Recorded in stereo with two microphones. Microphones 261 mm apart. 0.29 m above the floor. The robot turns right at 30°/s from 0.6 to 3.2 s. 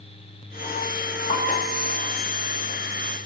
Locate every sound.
1.3 s a piano: 35° left (ahead or behind), 1.9 m; by 1.9 s 40° left (ahead or behind), 1.9 m